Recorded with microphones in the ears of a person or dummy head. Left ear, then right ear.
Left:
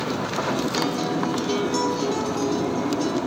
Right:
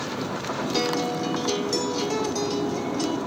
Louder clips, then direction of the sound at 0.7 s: Left 1 dB; 45° right (ahead or behind).